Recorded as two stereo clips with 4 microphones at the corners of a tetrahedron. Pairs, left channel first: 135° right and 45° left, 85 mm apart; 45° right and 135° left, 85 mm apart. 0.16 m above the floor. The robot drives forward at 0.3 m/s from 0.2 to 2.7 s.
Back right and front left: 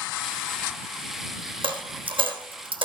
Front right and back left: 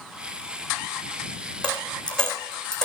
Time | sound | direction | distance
1.6 | a dropped coin | 35° left | 3.5 m